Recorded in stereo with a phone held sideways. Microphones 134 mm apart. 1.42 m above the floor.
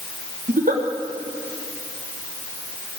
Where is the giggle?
75° right (ahead or behind), 1.1 m.